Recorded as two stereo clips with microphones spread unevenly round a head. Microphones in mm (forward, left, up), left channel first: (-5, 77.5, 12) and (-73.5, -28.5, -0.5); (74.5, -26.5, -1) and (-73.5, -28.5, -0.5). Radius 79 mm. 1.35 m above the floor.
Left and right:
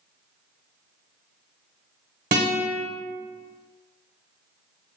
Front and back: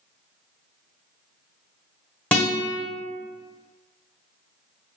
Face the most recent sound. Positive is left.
turn(degrees=-80)